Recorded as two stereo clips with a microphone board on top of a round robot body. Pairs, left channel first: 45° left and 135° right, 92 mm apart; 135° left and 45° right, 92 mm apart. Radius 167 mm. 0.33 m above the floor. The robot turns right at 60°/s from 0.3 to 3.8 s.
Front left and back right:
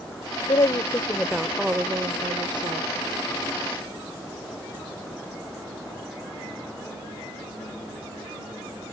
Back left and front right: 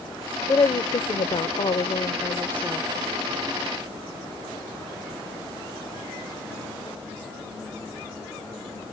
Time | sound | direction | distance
0.5 | a woman speaking | 80° left | ?